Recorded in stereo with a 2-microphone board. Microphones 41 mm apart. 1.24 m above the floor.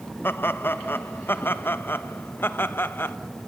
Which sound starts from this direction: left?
Laughter, at 0.2 s.